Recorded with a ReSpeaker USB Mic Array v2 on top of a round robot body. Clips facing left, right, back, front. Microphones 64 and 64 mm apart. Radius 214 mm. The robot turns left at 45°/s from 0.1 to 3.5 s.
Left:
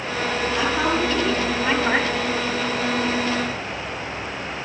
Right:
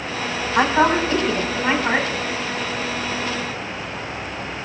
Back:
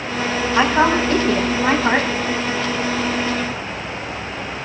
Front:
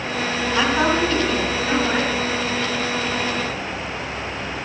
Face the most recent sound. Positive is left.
turn(degrees=110)